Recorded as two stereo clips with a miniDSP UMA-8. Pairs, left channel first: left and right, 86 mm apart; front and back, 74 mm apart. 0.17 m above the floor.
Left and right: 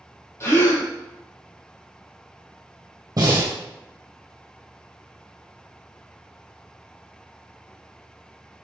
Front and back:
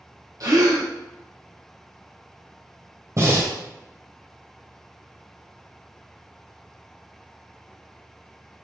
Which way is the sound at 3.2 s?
135° right.